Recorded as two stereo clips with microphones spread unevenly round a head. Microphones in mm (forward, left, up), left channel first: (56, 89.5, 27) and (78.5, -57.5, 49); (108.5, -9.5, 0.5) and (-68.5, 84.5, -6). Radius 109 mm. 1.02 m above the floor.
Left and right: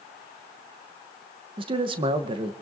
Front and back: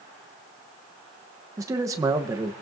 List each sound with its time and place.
1.6 s a man speaking: 140° right, 0.8 m